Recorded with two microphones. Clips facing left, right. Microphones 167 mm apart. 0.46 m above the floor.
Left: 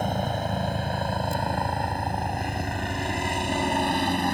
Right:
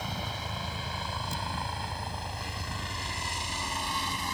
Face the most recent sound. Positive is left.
turn(degrees=60)  # may be behind; listen again after turning